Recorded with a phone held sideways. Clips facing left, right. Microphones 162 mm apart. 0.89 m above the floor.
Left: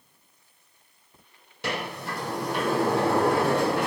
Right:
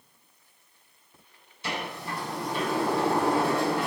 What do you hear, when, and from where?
1.6 s a sliding door: 70° left (ahead or behind), 3.5 m